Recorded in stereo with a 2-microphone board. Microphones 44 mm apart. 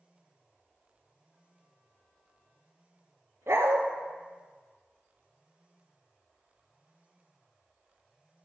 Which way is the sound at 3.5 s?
80° right.